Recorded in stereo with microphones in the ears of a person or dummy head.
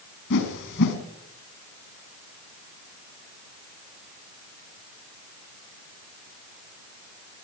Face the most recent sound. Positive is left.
turn(degrees=65)  # may be behind; listen again after turning